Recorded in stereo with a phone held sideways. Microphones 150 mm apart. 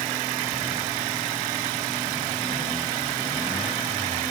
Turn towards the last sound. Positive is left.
No sound to turn to.